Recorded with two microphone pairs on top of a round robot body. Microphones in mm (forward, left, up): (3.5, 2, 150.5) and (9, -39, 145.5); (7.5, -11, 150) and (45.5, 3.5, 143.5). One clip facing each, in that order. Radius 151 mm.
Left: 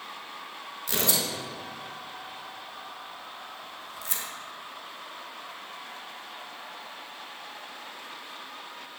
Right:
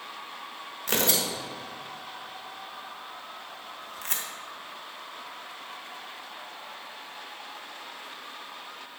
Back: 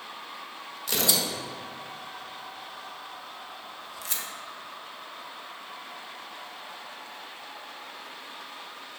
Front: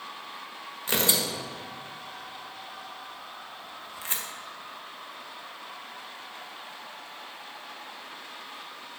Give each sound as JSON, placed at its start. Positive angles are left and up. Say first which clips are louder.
{"t": 0.9, "sound": "tearing paper", "louder": "right 2 dB, front 1 dB", "azimuth_deg": -35, "distance_m": 1.5}